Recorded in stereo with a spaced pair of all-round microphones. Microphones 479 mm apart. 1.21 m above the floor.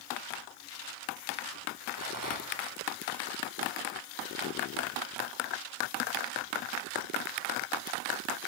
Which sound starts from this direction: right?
A rattle, at 2.0 s.